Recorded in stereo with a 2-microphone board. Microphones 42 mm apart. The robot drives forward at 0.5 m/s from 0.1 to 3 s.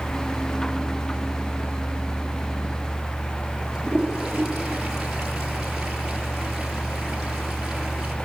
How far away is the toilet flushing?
About 5.5 m.